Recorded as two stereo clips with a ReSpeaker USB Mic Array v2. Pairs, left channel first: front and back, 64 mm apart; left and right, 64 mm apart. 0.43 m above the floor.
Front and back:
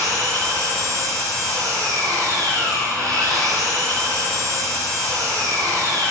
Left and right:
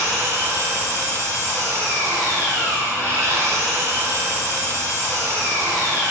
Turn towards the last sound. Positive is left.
turn(degrees=-145)